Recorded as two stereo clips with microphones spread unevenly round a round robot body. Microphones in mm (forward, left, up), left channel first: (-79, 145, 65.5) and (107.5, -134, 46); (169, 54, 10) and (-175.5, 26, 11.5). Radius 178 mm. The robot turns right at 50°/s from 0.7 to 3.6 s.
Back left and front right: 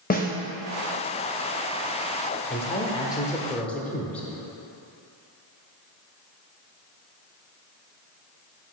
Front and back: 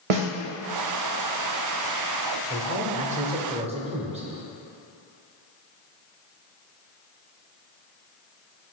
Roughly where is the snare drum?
Behind.